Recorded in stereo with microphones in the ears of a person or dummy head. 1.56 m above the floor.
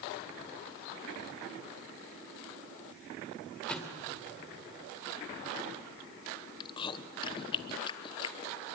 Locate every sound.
3.7 s a thud: centre (ahead or behind), 2.5 m
6.6 s chewing: 25° left (ahead or behind), 1.0 m